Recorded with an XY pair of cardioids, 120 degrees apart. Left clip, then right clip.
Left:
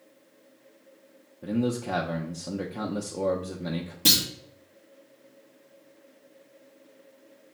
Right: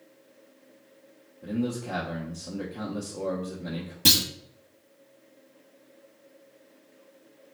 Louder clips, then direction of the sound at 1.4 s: Left 3 dB; 30° left.